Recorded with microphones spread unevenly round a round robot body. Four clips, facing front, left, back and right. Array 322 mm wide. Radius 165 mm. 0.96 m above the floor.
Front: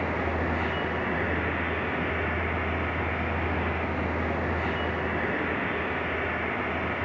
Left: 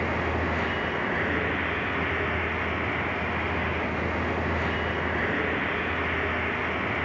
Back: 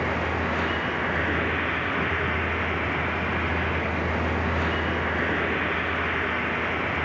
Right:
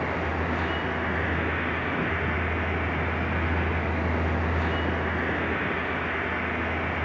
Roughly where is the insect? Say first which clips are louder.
Left 1 dB, back 2 dB; behind.